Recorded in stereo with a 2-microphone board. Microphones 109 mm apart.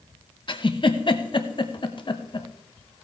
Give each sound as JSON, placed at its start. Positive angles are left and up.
{"t": 0.5, "sound": "a giggle", "side_deg": 45, "distance_m": 0.8}